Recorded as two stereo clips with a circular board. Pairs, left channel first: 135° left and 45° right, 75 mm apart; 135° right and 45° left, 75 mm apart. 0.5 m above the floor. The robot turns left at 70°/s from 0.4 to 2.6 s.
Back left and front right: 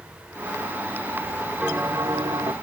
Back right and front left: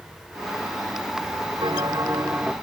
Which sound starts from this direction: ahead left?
A bell, at 1.6 s.